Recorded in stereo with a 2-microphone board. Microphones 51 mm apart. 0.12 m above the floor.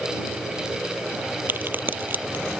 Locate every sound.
1.5 s a crack: 40° right (ahead or behind)